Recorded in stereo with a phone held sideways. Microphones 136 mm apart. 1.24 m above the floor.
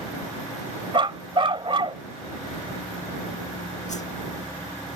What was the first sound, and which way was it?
A dog barking, 40° right (ahead or behind).